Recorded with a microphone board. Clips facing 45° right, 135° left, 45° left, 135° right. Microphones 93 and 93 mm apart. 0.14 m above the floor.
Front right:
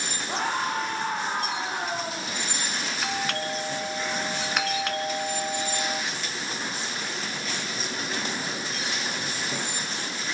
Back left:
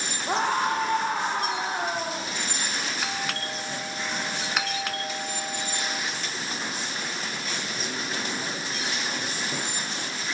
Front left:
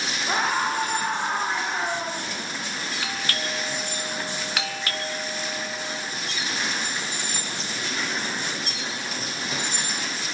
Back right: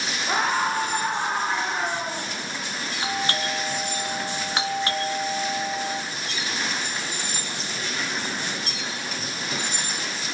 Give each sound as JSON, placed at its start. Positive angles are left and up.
{"t": 0.3, "sound": "a scream", "azimuth_deg": 140, "distance_m": 8.0}
{"t": 3.0, "sound": "a doorbell", "azimuth_deg": -135, "distance_m": 1.6}